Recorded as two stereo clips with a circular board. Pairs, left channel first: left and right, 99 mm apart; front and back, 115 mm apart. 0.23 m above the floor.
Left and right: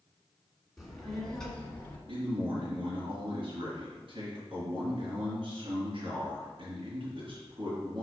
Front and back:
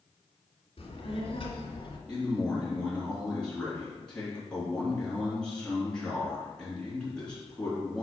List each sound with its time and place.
0.8 s a child speaking: straight ahead, 1.9 m; by 2.0 s 20° left, 1.5 m
2.1 s a man speaking: 80° right, 3.5 m